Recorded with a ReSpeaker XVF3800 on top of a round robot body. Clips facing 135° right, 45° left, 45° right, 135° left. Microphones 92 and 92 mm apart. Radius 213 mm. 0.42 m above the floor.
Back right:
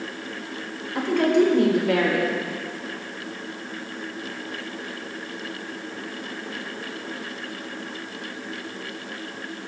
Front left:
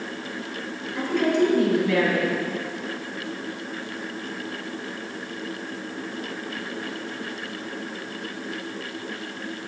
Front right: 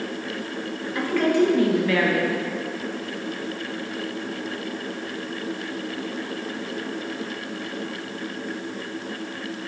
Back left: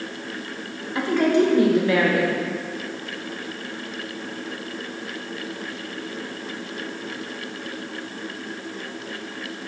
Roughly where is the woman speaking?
Behind.